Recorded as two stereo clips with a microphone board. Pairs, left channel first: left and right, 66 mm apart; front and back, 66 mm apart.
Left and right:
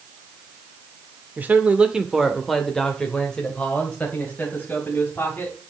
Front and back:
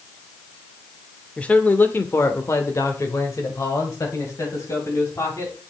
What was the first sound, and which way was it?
A man speaking, 60° right.